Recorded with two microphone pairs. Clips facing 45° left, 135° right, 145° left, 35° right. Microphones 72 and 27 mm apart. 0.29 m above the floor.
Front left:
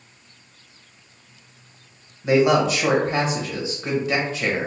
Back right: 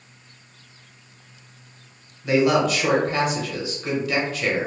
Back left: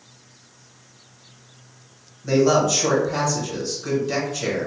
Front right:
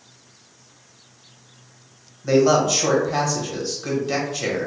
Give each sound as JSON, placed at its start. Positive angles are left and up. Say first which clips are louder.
{"t": 2.2, "sound": "a man speaking", "louder": "front left 2 dB, front right 1 dB", "azimuth_deg": 10, "distance_m": 1.0}